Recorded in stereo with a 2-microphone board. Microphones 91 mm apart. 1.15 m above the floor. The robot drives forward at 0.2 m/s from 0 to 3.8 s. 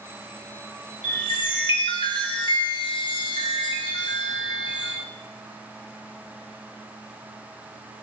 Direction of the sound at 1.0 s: 60° left (ahead or behind).